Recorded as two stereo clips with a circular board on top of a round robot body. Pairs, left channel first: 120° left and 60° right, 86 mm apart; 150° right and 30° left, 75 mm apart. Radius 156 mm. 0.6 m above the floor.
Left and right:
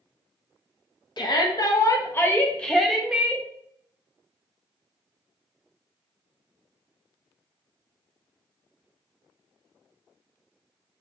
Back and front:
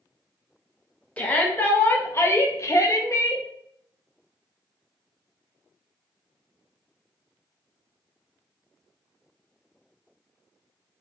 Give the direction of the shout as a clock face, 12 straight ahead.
7 o'clock.